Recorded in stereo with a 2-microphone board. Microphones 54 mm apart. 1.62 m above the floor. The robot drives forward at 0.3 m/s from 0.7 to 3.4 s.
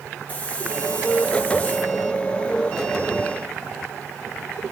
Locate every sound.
0.3 s a hiss: 25° left (ahead or behind), 3.5 m; by 1.9 s 30° left (ahead or behind), 3 m